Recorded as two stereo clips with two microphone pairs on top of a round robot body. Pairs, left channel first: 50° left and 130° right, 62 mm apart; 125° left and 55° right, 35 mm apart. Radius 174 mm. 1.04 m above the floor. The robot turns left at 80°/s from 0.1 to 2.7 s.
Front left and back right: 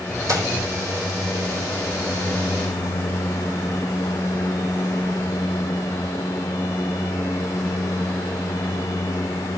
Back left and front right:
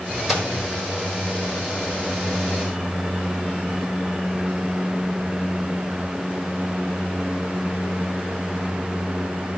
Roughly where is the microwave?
Behind right.